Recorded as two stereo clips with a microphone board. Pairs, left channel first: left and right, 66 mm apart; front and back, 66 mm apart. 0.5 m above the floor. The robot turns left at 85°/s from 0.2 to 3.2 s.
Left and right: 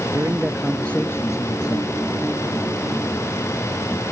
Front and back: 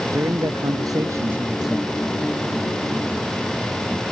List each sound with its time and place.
0.1 s a man speaking: 140° right; by 1.9 s 75° left